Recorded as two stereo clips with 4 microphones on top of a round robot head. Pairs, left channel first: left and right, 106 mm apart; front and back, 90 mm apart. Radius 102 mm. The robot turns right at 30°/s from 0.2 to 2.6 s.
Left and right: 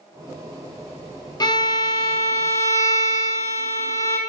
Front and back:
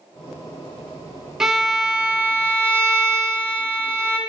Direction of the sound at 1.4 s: 100° left.